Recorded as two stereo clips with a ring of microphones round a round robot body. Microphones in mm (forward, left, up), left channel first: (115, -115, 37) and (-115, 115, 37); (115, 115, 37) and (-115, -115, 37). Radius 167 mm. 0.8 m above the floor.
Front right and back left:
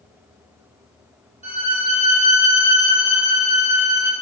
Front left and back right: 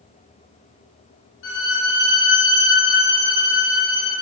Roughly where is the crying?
No crying in this recording.